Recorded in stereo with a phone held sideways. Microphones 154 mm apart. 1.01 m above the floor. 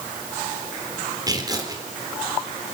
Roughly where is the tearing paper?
Right.